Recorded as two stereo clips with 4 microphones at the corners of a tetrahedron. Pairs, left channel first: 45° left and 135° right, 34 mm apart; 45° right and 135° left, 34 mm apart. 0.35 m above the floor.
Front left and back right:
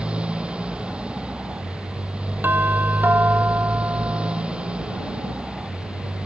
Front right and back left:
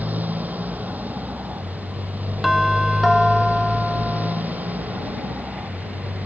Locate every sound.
0.0 s a motorcycle: 170° left
2.4 s a doorbell: 135° right